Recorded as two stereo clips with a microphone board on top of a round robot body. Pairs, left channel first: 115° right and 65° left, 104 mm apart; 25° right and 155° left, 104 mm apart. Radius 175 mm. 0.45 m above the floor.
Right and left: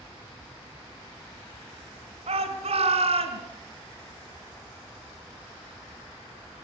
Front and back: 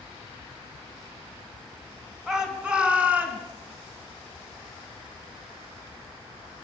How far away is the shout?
About 5.5 m.